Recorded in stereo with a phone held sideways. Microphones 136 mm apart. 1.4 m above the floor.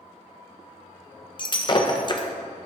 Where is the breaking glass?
35° left (ahead or behind), 0.6 m.